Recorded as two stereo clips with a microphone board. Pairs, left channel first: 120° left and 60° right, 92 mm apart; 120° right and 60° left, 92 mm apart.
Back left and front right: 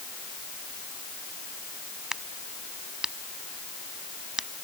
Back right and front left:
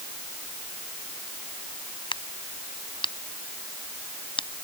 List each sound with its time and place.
2.1 s a crack: 145° right